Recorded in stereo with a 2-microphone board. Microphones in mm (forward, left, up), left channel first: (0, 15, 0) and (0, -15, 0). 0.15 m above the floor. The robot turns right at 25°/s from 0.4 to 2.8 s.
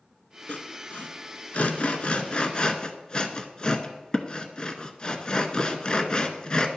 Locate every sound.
0.5 s sawing: 55° left (ahead or behind), 0.5 m; by 6.7 s 30° left (ahead or behind), 0.5 m